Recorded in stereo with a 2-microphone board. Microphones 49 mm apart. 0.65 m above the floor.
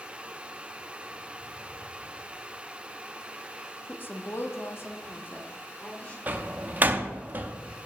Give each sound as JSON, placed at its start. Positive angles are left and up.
{"t": 3.9, "sound": "a woman speaking", "side_deg": 40, "distance_m": 0.8}
{"t": 6.3, "sound": "a door slam", "side_deg": -35, "distance_m": 0.6}